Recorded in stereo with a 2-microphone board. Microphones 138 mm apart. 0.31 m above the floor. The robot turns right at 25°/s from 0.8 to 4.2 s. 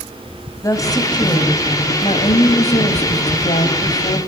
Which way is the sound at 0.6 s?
30° left.